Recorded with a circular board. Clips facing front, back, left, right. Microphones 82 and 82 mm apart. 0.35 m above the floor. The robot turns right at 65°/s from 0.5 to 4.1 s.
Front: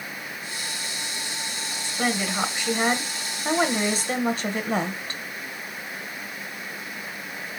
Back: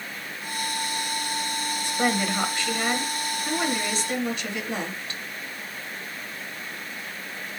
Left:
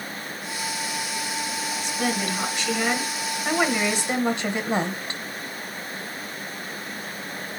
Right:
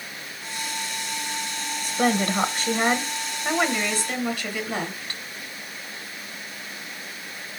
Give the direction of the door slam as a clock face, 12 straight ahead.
I don't hear a door slam.